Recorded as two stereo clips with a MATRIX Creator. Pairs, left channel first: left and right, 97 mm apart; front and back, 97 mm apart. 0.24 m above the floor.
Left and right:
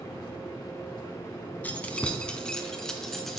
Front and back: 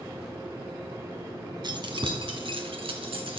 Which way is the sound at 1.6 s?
160° left.